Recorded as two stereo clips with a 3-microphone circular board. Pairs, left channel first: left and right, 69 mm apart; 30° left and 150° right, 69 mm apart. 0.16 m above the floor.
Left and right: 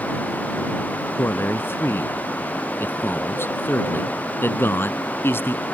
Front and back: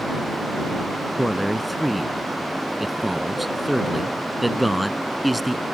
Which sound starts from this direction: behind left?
A man speaking, at 1.2 s.